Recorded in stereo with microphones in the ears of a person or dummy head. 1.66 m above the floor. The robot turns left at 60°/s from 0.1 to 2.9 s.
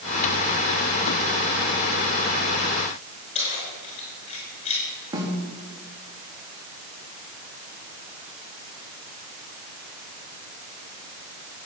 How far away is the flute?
No flute in this recording.